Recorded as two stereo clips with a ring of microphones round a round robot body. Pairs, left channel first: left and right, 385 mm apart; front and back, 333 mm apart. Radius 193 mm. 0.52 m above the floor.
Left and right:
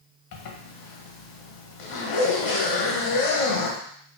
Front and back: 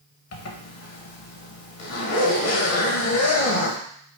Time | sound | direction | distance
0.3 | a zipper | 50° left | 0.8 m